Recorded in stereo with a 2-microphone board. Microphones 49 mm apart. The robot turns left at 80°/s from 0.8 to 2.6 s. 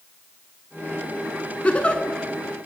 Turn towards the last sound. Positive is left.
turn(degrees=-5)